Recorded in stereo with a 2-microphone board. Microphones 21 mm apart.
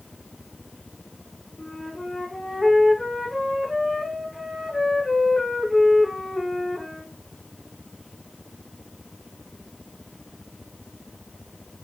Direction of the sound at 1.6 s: 30° left (ahead or behind).